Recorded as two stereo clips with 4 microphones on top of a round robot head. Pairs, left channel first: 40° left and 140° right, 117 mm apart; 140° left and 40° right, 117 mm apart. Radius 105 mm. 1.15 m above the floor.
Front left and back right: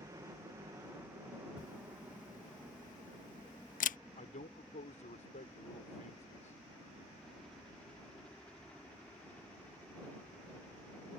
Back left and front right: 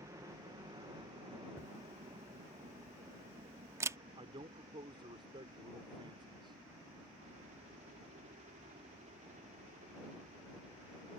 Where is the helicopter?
90° right; by 11.2 s 40° right.